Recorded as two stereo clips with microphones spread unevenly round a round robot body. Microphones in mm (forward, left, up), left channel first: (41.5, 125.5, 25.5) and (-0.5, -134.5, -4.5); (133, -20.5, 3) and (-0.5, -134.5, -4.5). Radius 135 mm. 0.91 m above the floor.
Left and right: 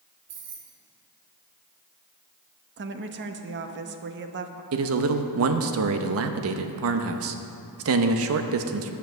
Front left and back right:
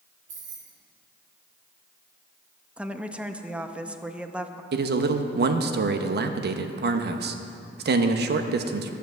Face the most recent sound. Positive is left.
turn(degrees=-125)